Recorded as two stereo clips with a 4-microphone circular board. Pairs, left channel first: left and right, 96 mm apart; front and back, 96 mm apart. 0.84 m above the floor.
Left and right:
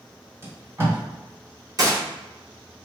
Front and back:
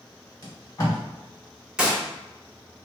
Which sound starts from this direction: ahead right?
Tape being pulled, at 0.4 s.